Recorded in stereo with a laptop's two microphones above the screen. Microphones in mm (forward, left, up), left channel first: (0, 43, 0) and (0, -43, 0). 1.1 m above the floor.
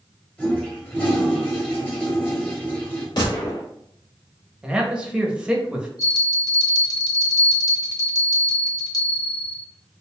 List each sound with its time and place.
0.4 s a toilet flushing: 20° left (ahead or behind), 1.3 m
3.2 s a gunshot: 50° left (ahead or behind), 1.8 m
4.6 s a man speaking: 10° right (ahead or behind), 0.7 m
6.0 s a bell: 40° left (ahead or behind), 1.0 m